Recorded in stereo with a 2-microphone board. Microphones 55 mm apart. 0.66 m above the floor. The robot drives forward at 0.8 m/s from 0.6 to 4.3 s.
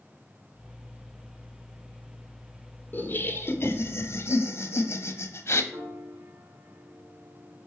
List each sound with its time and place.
2.9 s laughter: 40° left (ahead or behind), 1.4 m; by 5.6 s 50° left (ahead or behind), 1.2 m
5.7 s a piano: 75° right (ahead or behind), 2.5 m